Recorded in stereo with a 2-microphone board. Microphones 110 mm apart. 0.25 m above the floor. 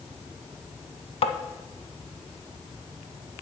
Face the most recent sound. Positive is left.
turn(degrees=60)  # may be behind; listen again after turning